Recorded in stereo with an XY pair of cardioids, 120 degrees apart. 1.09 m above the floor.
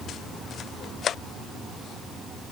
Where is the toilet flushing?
No toilet flushing in this recording.